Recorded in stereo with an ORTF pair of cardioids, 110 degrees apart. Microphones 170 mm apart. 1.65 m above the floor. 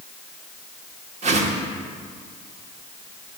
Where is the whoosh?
40° right, 1.6 m.